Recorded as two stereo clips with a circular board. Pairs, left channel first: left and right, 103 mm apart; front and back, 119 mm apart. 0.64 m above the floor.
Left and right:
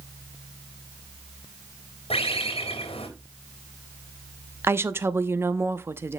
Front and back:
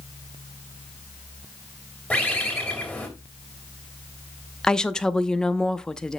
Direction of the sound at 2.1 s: 75° left.